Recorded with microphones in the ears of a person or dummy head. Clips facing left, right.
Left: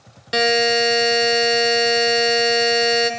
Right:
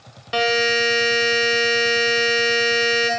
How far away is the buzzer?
About 1.4 m.